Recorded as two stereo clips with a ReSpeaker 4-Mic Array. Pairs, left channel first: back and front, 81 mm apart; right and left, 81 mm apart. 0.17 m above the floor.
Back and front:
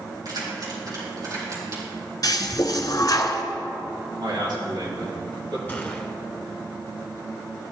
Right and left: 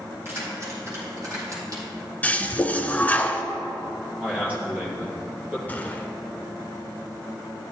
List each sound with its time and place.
0.2 s keys jangling: 35° left, 4 m; by 1.8 s 50° left, 4 m
2.2 s a toilet flushing: 155° right, 0.8 m
4.2 s a man speaking: 20° left, 4 m
5.7 s a gunshot: 135° right, 1.3 m